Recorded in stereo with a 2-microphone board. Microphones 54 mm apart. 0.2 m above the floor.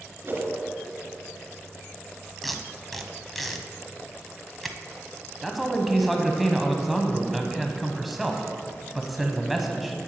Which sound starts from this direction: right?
A whoosh, at 0.2 s.